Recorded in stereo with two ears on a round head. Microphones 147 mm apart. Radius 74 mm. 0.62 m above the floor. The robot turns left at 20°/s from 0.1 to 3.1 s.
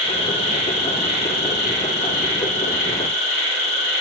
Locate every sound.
0.0 s an insect: 140° left, 1.0 m; by 4.0 s 80° left, 1.0 m